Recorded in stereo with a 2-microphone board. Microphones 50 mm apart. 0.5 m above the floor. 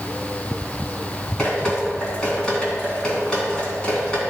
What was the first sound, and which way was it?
Dripping, 15° left (ahead or behind).